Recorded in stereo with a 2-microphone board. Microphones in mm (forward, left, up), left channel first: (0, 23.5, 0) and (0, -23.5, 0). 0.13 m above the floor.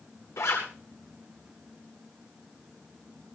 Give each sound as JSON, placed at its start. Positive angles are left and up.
{"t": 0.4, "sound": "a zipper", "side_deg": 80, "distance_m": 8.0}